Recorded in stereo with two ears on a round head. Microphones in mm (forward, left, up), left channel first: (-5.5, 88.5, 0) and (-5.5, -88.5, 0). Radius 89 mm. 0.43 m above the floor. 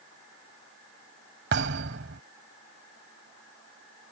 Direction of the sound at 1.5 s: 60° right (ahead or behind).